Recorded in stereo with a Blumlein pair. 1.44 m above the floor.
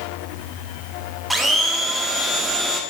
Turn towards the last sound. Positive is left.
turn(degrees=-5)